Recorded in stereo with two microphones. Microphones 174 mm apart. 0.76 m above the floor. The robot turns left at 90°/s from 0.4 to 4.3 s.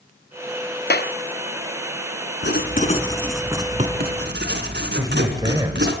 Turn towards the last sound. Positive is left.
turn(degrees=-20)  # may be behind; listen again after turning